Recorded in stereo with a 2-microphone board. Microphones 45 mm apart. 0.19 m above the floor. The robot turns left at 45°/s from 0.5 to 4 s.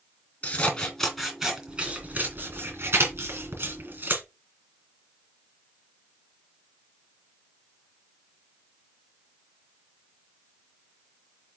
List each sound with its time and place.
0.4 s scissors: 30° left (ahead or behind), 3 m; by 4.2 s 50° right (ahead or behind), 3 m